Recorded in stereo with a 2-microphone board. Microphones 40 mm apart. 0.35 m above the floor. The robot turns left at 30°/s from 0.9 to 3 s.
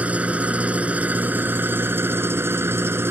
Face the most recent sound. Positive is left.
turn(degrees=-95)